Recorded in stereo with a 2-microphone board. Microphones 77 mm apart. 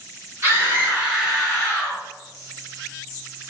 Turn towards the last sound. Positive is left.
turn(degrees=25)  # may be behind; listen again after turning